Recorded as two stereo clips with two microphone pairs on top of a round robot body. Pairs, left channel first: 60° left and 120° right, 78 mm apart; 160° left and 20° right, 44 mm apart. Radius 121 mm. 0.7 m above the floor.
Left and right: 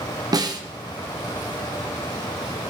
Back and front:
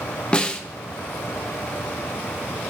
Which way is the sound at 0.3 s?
145° right.